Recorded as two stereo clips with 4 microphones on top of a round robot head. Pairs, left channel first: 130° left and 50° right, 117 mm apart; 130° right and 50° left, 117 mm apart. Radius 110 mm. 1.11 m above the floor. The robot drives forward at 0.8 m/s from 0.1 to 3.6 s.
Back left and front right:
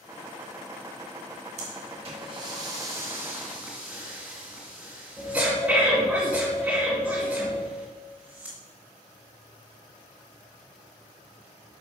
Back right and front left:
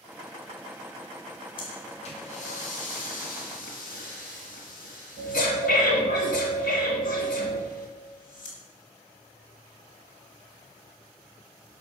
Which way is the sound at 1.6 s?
80° right.